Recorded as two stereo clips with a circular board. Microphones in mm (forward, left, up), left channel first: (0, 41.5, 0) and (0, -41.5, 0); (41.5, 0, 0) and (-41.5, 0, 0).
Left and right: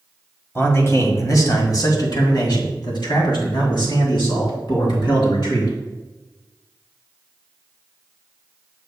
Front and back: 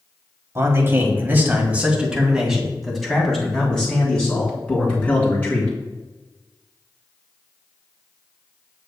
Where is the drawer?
No drawer in this recording.